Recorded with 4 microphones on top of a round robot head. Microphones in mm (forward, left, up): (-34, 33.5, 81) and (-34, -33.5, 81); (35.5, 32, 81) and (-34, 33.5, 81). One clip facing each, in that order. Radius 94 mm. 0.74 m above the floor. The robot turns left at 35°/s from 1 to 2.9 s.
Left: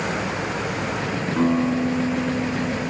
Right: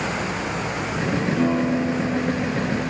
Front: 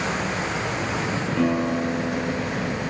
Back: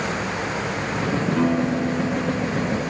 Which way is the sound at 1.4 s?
105° left.